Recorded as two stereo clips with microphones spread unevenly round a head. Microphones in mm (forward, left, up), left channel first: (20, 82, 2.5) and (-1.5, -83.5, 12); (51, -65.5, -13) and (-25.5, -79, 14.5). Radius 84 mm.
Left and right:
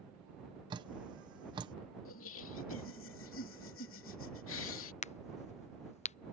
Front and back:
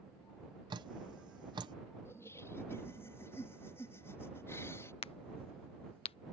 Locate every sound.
0.7 s dripping: 160° right
2.0 s laughter: 85° left
5.0 s a crack: 30° left